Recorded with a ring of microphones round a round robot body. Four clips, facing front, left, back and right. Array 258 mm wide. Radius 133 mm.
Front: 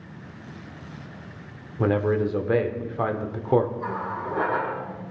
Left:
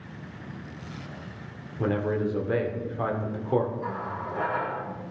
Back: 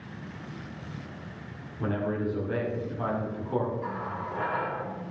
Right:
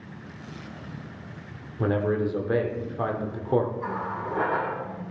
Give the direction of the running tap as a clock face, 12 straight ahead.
1 o'clock.